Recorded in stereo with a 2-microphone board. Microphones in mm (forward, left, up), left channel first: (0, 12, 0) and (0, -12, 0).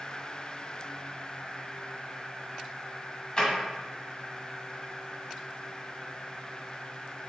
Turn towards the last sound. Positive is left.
turn(degrees=35)  # may be behind; listen again after turning